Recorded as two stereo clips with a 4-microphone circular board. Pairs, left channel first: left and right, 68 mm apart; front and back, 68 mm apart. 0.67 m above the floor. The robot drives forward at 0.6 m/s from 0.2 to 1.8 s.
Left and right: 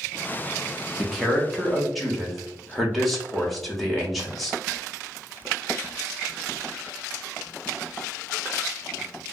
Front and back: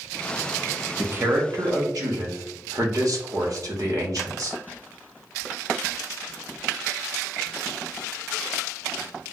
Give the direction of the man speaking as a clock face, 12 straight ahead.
6 o'clock.